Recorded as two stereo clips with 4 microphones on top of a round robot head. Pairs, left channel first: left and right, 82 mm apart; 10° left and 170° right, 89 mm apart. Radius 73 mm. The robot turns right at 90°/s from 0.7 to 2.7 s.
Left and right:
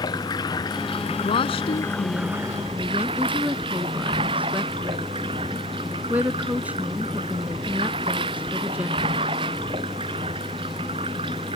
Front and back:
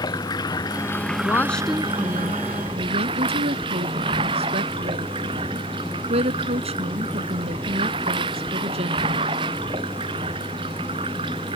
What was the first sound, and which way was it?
Running water, 50° left.